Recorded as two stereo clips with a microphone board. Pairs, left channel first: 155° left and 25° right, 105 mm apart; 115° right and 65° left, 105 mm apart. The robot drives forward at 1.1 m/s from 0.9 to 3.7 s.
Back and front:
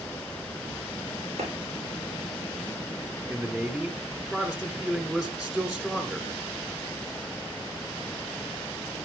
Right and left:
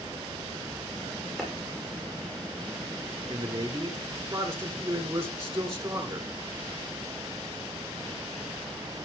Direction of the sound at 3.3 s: 40° left.